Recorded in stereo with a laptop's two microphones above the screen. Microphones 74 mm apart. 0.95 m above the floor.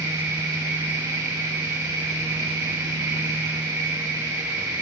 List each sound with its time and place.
0.0 s a machine running: 75° right (ahead or behind), 6 m